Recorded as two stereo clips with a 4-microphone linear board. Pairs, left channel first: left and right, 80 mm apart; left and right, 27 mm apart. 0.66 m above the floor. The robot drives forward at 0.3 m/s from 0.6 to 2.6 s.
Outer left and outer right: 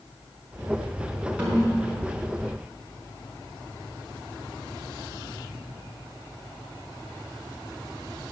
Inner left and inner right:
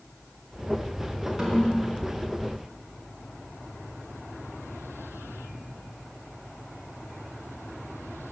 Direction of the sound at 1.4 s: 15° right (ahead or behind).